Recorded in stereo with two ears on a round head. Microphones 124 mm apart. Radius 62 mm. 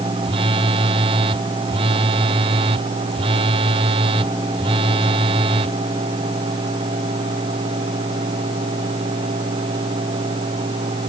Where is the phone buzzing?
40° right (ahead or behind).